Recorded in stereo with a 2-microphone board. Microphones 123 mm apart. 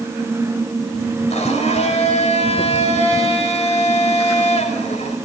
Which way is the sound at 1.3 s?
65° left (ahead or behind).